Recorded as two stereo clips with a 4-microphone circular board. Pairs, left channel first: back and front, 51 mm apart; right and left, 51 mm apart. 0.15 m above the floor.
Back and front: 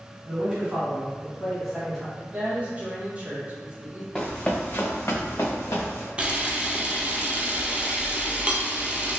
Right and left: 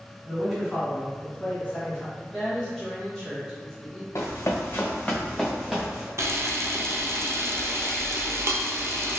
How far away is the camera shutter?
About 0.5 m.